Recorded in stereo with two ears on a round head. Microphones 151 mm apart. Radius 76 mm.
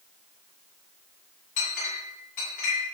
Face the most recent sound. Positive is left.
turn(degrees=50)  # may be behind; listen again after turning